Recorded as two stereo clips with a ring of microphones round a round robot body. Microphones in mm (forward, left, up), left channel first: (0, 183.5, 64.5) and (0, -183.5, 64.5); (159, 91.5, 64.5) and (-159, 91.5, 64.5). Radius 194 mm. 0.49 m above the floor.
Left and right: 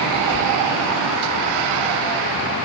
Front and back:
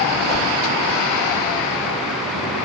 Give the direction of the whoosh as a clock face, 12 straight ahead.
10 o'clock.